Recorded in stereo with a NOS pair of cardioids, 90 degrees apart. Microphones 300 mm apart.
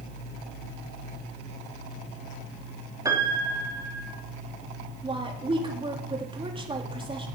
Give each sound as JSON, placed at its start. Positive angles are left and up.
{"t": 3.0, "sound": "a piano", "azimuth_deg": -10, "distance_m": 3.0}
{"t": 5.0, "sound": "a woman speaking", "azimuth_deg": -15, "distance_m": 3.5}